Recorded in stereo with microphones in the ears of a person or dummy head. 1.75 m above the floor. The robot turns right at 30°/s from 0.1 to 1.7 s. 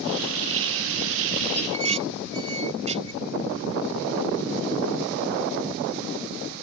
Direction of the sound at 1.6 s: 30° right (ahead or behind).